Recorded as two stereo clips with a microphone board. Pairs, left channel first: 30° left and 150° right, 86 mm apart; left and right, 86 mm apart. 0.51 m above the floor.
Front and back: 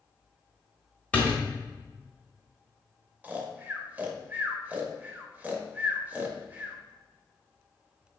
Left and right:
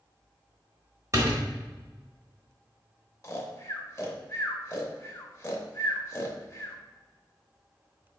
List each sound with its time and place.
1.1 s a door slam: 40° right, 1.4 m
3.2 s snoring: 140° left, 0.7 m